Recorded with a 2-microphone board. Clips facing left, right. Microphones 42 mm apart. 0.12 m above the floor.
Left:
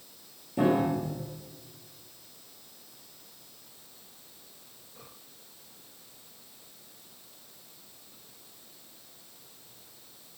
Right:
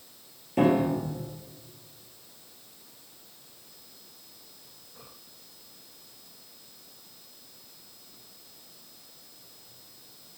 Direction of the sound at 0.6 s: 60° right (ahead or behind).